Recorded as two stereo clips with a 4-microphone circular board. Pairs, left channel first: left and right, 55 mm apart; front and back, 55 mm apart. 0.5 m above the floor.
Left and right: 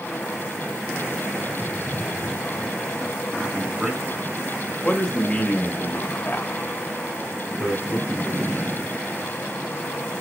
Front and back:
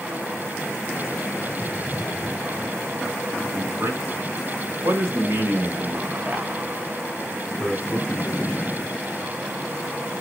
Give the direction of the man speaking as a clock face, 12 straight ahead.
6 o'clock.